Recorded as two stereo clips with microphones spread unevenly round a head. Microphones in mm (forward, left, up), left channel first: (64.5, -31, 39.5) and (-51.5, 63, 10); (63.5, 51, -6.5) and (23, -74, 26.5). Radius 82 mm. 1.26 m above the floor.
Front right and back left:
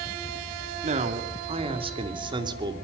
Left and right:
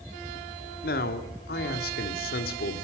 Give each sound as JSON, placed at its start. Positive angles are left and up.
{"t": 0.8, "sound": "a man speaking", "azimuth_deg": 95, "distance_m": 2.5}